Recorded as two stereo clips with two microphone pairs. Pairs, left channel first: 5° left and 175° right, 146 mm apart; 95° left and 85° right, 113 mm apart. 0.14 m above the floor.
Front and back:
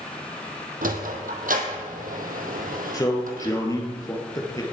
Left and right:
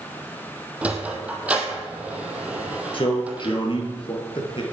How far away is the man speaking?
About 2.5 m.